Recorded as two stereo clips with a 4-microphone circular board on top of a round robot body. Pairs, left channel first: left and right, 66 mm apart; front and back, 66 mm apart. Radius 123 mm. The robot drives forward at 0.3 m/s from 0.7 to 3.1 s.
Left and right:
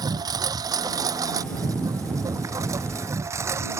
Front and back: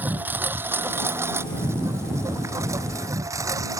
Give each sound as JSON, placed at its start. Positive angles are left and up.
{"t": 0.0, "sound": "a lawn mower", "azimuth_deg": -115}